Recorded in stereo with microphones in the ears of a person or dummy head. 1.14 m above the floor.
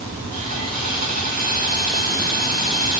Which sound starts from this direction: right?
Sawing, at 0.3 s.